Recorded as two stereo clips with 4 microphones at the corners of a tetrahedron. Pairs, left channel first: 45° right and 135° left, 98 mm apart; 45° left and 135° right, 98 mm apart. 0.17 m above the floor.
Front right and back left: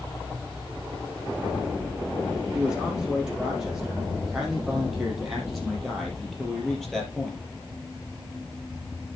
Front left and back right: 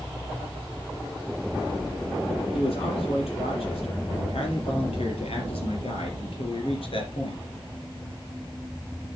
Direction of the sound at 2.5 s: 55° left.